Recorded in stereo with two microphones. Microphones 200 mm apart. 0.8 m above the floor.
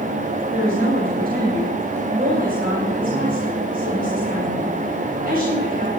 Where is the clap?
No clap in this recording.